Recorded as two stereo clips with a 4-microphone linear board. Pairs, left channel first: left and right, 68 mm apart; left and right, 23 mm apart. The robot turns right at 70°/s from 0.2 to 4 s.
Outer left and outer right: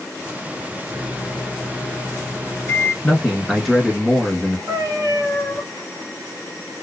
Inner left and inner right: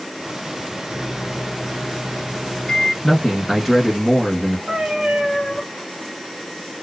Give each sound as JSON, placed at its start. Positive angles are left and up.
{"t": 0.9, "sound": "a microwave", "azimuth_deg": -30, "distance_m": 1.4}
{"t": 3.0, "sound": "a man speaking", "side_deg": 15, "distance_m": 1.1}
{"t": 4.7, "sound": "a cat meowing", "side_deg": -55, "distance_m": 1.5}